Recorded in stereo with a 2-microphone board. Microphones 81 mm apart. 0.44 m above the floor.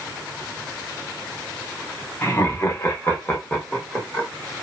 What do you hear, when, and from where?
2.2 s laughter: 30° left (ahead or behind), 0.8 m; by 4.3 s 15° left (ahead or behind), 1.3 m